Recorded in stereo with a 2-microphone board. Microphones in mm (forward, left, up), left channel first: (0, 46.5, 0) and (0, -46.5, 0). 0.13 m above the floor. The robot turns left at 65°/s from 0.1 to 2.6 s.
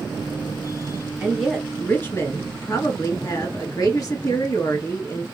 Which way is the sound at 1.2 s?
160° right.